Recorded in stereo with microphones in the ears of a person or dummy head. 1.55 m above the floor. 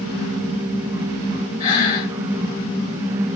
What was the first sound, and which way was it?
Breathing, 40° left (ahead or behind).